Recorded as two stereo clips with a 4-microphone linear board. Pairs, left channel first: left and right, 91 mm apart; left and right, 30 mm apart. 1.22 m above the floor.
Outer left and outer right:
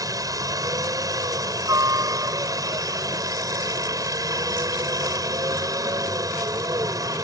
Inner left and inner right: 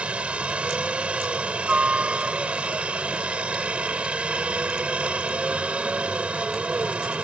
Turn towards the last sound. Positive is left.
turn(degrees=-40)  # may be behind; listen again after turning